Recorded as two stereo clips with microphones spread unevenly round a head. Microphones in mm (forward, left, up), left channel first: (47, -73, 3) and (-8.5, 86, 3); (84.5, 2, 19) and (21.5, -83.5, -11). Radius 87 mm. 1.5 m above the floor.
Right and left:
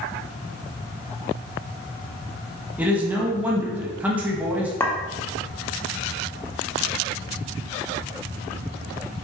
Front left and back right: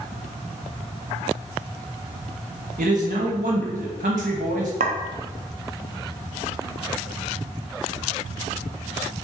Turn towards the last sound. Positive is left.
turn(degrees=-145)